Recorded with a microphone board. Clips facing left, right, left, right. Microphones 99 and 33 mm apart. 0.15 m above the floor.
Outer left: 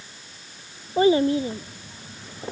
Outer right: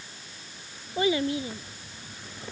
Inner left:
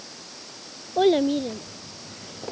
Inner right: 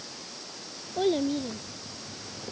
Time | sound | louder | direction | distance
1.0 | a child speaking | outer left 8 dB, inner left 7 dB | 35° left (ahead or behind) | ?